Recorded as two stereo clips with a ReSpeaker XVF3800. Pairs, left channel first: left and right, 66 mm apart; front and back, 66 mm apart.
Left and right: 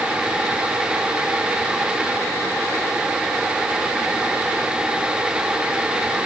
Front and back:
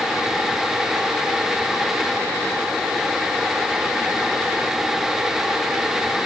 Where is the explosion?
I don't hear an explosion.